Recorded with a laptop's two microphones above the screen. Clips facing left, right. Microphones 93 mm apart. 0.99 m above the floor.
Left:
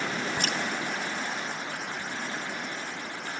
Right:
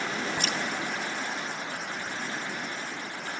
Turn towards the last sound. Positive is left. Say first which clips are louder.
# left 1 dB
turn(degrees=55)  # may be behind; listen again after turning